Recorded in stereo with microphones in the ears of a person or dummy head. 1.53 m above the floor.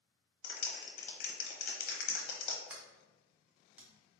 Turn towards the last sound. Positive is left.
turn(degrees=-5)  # may be behind; listen again after turning